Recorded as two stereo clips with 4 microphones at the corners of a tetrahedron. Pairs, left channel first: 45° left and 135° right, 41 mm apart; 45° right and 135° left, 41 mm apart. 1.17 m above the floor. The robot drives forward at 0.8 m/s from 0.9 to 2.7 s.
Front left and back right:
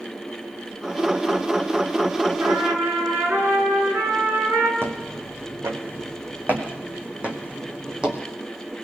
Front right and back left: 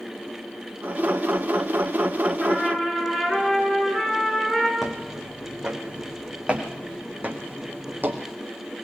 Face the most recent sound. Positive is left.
turn(degrees=155)